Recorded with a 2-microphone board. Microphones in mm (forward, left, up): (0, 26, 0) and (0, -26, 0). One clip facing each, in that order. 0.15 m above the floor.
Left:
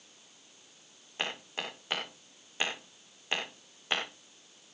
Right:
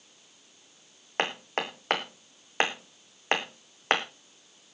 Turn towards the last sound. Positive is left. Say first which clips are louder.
# right 7 dB
turn(degrees=-60)  # may be behind; listen again after turning